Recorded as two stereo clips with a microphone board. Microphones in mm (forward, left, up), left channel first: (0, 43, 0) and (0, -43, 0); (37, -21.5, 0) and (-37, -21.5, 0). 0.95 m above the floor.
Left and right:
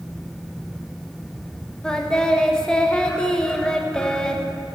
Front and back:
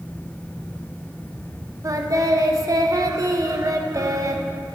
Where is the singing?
170° left, 0.9 m.